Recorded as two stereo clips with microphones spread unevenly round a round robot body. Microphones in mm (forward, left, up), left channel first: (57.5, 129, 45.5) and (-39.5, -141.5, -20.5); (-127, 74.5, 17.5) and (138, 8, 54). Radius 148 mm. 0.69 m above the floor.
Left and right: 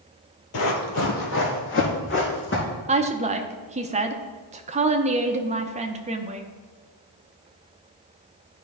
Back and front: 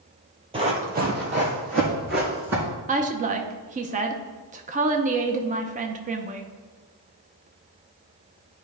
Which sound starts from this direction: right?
A woman speaking, at 2.9 s.